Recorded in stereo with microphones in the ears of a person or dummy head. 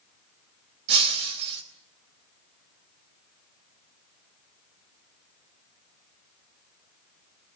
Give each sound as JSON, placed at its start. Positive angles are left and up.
{"t": 0.9, "sound": "breaking glass", "side_deg": -65, "distance_m": 3.5}